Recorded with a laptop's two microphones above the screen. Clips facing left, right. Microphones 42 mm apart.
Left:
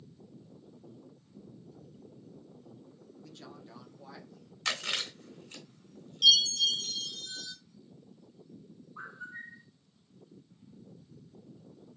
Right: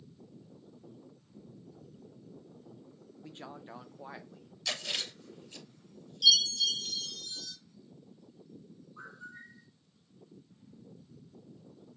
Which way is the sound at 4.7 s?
60° left (ahead or behind).